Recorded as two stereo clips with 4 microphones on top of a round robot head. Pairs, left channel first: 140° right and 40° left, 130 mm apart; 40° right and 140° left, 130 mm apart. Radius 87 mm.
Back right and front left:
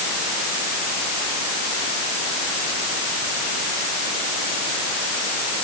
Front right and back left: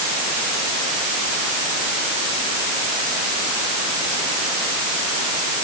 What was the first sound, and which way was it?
Only background noise.